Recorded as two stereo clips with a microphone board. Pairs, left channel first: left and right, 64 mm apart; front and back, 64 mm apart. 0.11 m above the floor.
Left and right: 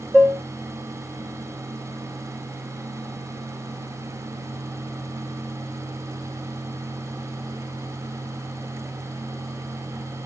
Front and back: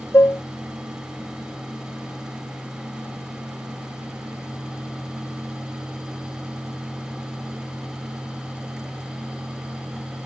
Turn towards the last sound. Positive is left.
turn(degrees=15)